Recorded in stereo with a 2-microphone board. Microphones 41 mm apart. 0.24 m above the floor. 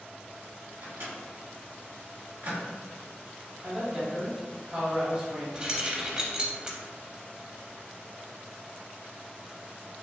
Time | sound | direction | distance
0.8 | a microwave | 55° right (ahead or behind) | 1.5 m
3.6 | a woman speaking | 20° right (ahead or behind) | 1.2 m
5.5 | keys jangling | 20° right (ahead or behind) | 0.6 m